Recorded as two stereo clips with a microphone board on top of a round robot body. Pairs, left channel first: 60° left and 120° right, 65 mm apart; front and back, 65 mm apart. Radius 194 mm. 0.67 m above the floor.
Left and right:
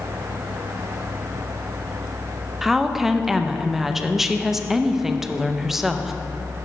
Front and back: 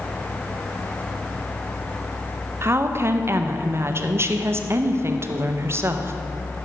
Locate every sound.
2.6 s a woman speaking: 155° left, 0.8 m